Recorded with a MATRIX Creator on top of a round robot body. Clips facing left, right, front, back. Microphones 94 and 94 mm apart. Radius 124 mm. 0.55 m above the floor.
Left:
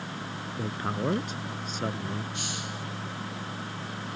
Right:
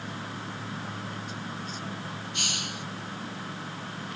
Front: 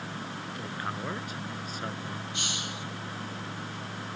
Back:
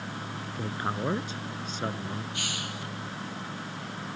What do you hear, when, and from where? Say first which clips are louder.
0.6 s a man speaking: left 6 dB, back 5 dB; 120° left
2.3 s a hiss: even, back 1 dB; 65° right